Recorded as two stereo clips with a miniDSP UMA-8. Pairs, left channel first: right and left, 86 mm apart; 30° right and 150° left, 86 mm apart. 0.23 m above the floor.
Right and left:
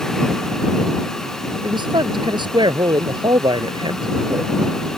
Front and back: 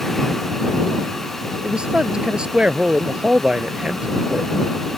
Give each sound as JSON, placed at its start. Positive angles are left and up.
{"t": 1.6, "sound": "a woman speaking", "azimuth_deg": 70}